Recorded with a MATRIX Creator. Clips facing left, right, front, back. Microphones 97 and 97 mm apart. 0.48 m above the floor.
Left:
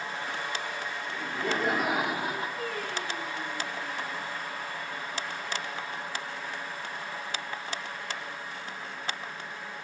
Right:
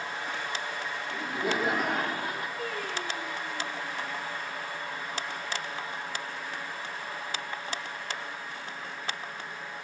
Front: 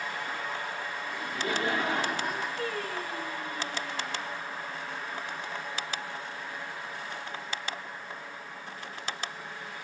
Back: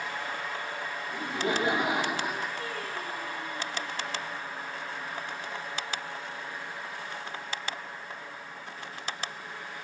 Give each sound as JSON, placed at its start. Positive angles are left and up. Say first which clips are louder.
{"t": 1.1, "sound": "laughter", "louder": "right 1 dB, back 3 dB", "azimuth_deg": -145, "distance_m": 0.8}
{"t": 2.6, "sound": "singing", "louder": "even, front 2 dB", "azimuth_deg": 0, "distance_m": 4.5}